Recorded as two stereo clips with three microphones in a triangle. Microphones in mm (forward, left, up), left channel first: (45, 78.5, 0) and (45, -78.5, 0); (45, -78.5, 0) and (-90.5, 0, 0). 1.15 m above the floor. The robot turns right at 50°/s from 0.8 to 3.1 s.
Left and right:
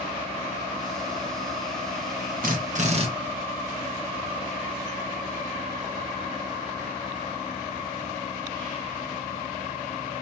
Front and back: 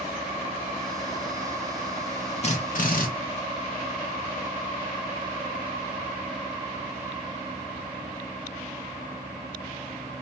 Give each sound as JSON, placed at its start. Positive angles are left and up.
{"t": 2.4, "sound": "a drill", "azimuth_deg": -75, "distance_m": 1.4}